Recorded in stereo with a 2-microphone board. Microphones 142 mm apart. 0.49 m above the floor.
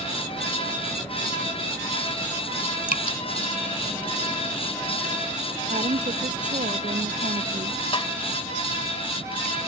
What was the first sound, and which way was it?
Dripping, 80° left.